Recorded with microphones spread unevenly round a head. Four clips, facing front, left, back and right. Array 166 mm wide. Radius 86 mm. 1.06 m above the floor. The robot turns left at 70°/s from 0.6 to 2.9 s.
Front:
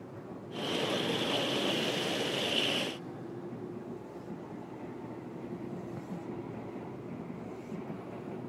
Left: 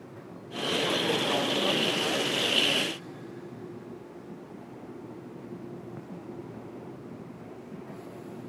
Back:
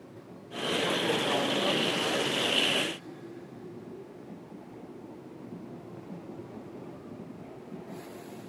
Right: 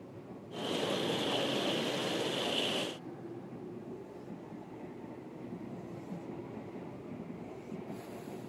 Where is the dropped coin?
I don't hear a dropped coin.